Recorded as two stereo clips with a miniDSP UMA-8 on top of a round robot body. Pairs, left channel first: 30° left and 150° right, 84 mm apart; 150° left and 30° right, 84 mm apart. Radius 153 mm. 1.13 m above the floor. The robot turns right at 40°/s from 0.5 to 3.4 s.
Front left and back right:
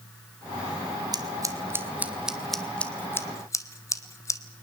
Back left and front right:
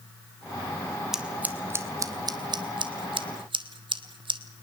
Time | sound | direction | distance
1.1 | scissors | 115° right | 1.6 m